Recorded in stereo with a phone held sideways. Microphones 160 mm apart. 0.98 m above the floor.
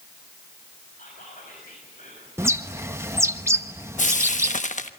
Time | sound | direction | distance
1.0 | whispering | 55° left (ahead or behind) | 6 m
2.4 | a bird | 15° right (ahead or behind) | 1.1 m
4.0 | frying | 50° left (ahead or behind) | 1.0 m